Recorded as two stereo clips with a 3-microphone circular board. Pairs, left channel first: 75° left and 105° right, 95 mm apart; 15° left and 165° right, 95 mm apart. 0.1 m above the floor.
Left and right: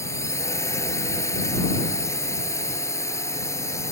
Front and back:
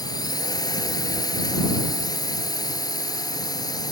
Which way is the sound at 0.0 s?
30° left.